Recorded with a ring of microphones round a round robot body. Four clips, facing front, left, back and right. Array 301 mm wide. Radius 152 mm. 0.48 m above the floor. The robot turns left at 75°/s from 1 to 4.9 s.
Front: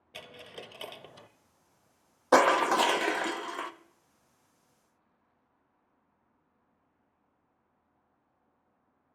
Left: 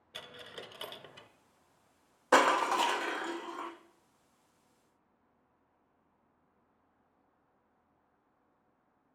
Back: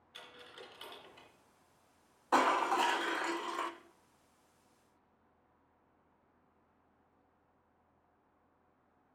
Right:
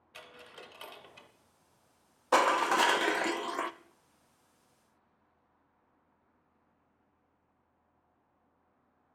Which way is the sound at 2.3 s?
15° left.